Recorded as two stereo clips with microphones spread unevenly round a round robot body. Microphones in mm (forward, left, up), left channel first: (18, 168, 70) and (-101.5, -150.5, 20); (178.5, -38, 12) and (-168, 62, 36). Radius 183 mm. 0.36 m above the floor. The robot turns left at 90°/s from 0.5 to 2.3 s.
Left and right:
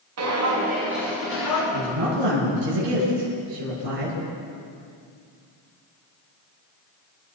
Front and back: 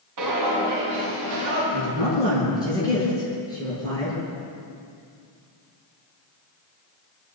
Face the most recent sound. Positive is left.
turn(degrees=-95)